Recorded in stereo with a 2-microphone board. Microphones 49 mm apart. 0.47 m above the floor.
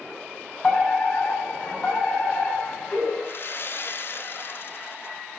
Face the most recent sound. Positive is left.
turn(degrees=50)  # may be behind; listen again after turning